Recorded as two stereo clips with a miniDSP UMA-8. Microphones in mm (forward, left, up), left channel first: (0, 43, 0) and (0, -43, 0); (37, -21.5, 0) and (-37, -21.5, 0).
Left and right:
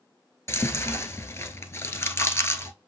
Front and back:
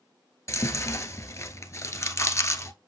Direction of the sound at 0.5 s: 40° left.